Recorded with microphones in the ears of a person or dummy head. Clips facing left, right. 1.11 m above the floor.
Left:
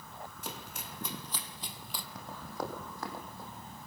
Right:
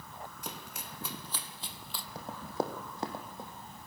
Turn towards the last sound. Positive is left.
turn(degrees=-15)  # may be behind; listen again after turning